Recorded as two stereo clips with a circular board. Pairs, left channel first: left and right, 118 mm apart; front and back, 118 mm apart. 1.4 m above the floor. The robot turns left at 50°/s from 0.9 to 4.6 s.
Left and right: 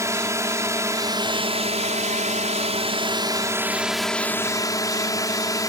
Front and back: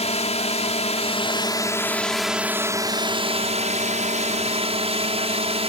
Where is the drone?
25° right; by 5.7 s 150° left.